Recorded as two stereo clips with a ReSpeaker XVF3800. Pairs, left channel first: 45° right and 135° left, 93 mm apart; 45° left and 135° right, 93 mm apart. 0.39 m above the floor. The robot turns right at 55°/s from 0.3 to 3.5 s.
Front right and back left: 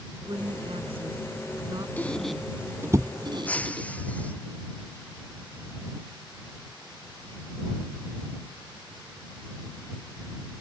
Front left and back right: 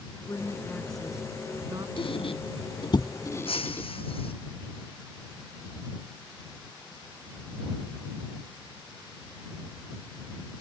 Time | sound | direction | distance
0.3 | a woman speaking | 95° left | ?
2.0 | a squeak | 25° left | ?
3.5 | breaking glass | 25° left | ?